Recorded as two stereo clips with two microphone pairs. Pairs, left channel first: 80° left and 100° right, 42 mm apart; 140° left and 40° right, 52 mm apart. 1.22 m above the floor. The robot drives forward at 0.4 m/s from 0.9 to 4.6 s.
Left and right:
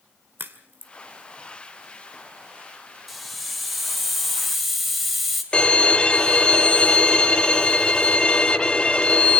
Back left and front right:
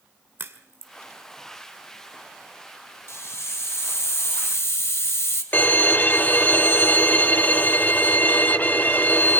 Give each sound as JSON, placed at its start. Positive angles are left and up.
{"t": 0.4, "sound": "a crack", "azimuth_deg": -75, "distance_m": 2.0}
{"t": 3.1, "sound": "a hiss", "azimuth_deg": 170, "distance_m": 2.5}
{"t": 5.5, "sound": "a violin", "azimuth_deg": 130, "distance_m": 0.9}